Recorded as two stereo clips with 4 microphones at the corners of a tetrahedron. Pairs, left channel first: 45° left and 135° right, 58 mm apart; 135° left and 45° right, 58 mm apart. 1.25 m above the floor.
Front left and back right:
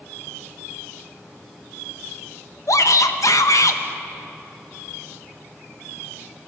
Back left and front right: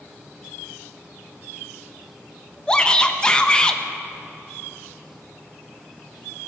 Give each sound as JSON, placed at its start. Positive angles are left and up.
{"t": 2.7, "sound": "a shout", "azimuth_deg": 60, "distance_m": 1.0}